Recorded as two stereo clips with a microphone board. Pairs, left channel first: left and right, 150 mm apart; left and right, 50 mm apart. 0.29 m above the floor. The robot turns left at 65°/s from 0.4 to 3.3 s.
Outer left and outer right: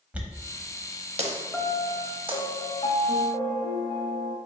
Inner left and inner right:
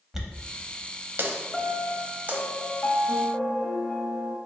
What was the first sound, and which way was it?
A dropped coin, 10° right (ahead or behind).